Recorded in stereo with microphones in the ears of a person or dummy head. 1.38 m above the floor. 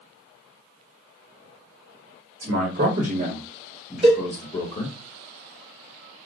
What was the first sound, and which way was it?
A man speaking, 65° right (ahead or behind).